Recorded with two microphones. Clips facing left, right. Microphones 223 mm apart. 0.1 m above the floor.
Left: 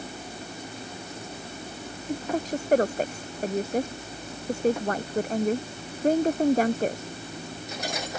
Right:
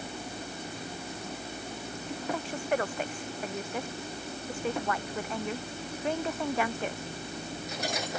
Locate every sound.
2.1 s a woman speaking: 40° left (ahead or behind)